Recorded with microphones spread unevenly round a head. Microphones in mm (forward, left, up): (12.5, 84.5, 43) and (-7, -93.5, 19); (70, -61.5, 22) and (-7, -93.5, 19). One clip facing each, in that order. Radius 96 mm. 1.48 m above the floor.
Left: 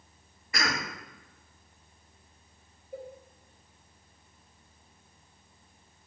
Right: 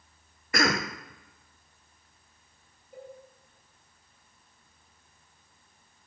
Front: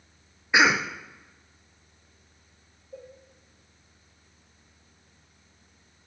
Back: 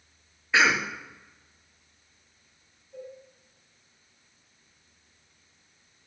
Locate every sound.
0.5 s a cough: 50° right, 0.7 m
2.9 s a cowbell: 80° left, 3 m